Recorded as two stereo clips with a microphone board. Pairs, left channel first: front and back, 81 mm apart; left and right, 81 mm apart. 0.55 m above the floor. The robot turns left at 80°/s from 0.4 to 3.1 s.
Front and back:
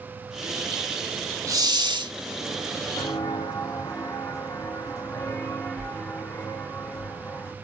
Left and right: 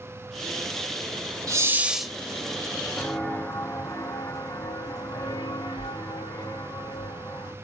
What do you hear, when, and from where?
1.5 s a hiss: 135° right, 0.9 m; by 2.1 s 175° left, 0.9 m
3.0 s footsteps: 20° left, 1.3 m; by 7.5 s 70° left, 5 m